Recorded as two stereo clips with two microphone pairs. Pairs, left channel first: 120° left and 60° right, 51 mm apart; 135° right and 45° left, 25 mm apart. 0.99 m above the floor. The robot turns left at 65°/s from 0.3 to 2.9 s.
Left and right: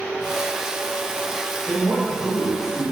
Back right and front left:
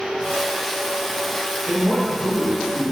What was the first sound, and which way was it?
A man speaking, 135° left.